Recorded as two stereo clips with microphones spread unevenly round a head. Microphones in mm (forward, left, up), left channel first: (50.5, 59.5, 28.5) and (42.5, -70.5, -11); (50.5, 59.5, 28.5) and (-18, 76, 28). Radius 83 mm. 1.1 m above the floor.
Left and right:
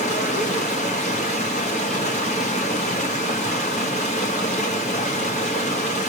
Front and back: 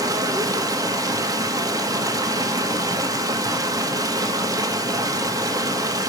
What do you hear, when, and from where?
0.0 s running water: 140° left, 1.8 m